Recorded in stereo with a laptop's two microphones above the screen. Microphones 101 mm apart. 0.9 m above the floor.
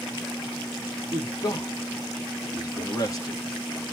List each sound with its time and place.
1.1 s a man speaking: 35° left (ahead or behind), 1.6 m